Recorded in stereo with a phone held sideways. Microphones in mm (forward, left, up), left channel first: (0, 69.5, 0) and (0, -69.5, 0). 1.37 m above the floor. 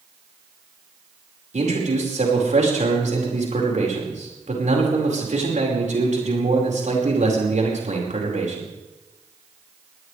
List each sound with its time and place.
1.5 s a man speaking: 65° right (ahead or behind), 5 m